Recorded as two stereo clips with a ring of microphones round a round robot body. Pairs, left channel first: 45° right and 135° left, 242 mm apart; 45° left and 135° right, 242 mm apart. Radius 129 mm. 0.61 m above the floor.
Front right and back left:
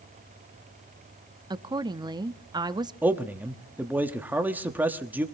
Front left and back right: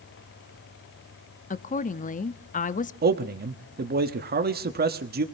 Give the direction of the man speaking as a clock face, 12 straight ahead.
5 o'clock.